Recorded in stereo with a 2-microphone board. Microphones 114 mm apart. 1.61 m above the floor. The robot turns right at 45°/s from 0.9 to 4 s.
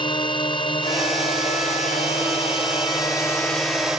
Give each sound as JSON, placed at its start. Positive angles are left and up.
{"t": 0.0, "sound": "a drone", "side_deg": 45}